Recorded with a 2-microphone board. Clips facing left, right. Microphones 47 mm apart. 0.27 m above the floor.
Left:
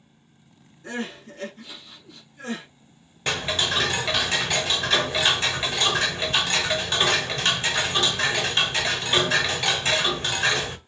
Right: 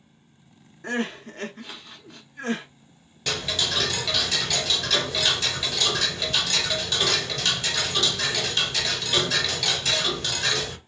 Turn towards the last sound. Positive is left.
turn(degrees=35)  # may be behind; listen again after turning